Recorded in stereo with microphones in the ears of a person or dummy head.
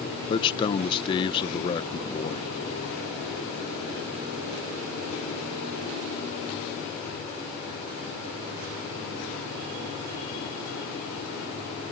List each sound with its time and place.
0.3 s a man speaking: 25° left (ahead or behind)